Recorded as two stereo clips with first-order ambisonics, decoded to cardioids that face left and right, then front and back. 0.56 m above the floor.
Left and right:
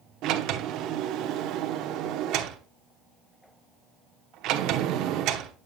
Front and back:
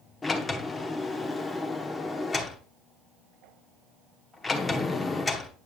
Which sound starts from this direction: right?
A sliding door, at 0.2 s.